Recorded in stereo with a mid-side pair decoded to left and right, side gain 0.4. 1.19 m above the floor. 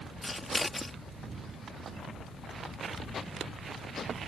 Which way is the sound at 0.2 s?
20° left.